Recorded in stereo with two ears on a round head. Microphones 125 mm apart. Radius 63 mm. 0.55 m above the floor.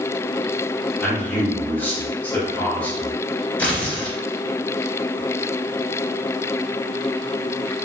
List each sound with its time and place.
1.0 s a man speaking: 10° left (ahead or behind), 0.9 m
3.6 s tearing paper: 10° left (ahead or behind), 0.9 m